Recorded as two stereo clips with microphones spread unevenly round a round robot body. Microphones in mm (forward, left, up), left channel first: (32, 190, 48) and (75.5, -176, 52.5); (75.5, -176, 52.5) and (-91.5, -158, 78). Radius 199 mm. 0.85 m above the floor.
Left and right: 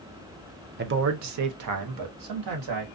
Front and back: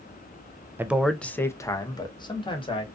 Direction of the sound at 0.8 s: 105° right.